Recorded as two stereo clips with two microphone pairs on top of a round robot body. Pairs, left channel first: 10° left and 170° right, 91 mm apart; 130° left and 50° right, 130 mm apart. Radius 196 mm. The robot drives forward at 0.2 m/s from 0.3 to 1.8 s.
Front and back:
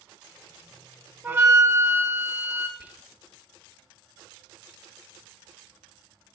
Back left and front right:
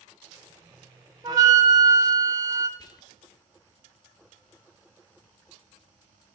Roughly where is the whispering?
Behind left.